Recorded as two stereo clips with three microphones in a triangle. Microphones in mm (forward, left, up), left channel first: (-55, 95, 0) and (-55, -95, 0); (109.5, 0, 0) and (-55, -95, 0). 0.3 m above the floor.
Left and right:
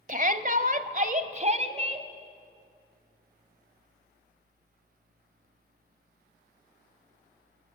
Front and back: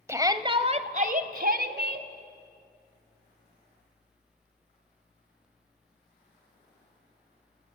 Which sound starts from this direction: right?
A shout, at 0.1 s.